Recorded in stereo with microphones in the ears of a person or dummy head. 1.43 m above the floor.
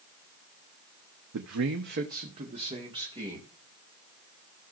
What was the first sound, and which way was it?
A man speaking, 85° right.